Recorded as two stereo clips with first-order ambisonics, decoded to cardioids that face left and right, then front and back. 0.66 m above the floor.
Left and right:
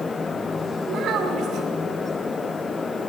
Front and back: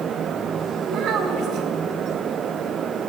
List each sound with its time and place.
0.9 s a child speaking: 135° right, 1.8 m